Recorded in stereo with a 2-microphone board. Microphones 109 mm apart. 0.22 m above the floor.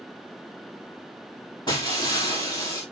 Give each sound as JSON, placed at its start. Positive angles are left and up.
{"t": 1.7, "sound": "breaking glass", "side_deg": 45, "distance_m": 4.0}